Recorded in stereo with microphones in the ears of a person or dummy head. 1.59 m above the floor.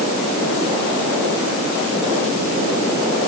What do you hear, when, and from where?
Only background noise.